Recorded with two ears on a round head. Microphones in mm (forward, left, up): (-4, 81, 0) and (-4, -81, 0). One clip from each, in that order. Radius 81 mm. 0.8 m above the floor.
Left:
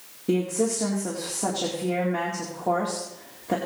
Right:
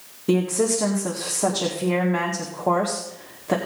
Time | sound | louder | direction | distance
0.3 | a woman speaking | right 3 dB | 40° right (ahead or behind) | 1.9 m